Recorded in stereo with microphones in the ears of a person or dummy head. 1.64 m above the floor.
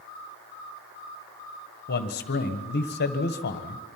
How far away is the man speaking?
About 1.6 m.